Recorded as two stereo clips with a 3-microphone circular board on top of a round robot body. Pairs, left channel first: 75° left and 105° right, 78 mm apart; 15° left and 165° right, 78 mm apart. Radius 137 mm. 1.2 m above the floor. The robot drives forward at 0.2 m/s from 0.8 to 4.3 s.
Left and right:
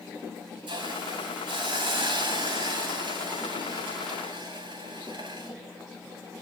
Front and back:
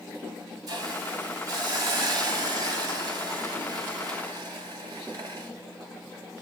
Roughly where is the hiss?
Behind right.